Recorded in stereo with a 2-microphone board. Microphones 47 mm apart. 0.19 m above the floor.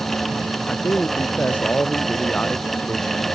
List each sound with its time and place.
0.7 s a man speaking: 30° left (ahead or behind)